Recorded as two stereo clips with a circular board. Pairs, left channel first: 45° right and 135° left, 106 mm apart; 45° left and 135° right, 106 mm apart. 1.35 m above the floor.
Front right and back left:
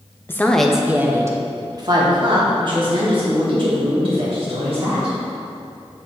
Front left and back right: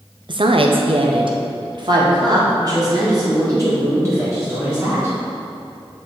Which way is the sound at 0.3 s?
110° right.